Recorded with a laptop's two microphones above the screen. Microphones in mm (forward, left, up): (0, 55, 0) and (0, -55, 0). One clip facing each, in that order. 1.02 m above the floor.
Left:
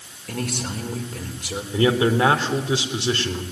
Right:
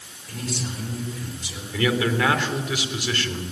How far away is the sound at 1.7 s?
About 3.5 m.